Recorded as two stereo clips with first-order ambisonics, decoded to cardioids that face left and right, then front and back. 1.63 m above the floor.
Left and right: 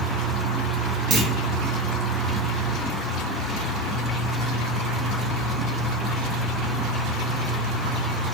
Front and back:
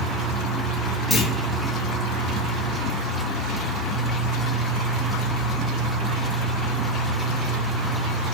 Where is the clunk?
70° right, 0.7 m.